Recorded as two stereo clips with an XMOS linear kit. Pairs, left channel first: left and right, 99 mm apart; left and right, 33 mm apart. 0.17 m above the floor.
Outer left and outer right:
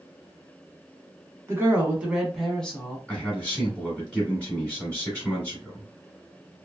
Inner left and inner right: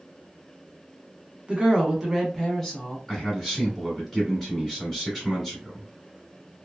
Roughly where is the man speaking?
Centre.